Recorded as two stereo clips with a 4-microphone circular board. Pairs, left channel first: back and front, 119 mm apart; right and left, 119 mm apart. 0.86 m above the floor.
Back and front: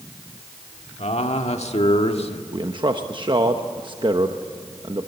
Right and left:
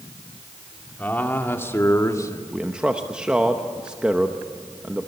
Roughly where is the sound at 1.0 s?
Behind.